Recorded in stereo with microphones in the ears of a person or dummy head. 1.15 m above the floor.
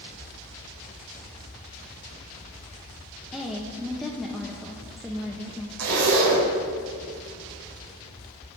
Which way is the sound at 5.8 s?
75° right (ahead or behind).